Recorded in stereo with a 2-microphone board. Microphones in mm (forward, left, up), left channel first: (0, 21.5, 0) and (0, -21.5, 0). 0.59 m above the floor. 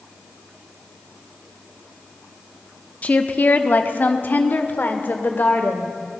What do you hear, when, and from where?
3.0 s a woman speaking: 35° left (ahead or behind), 0.7 m; by 5.9 s 45° left (ahead or behind), 2 m